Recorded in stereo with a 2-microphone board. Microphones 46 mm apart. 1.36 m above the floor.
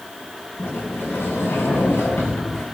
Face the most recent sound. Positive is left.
turn(degrees=75)  # may be behind; listen again after turning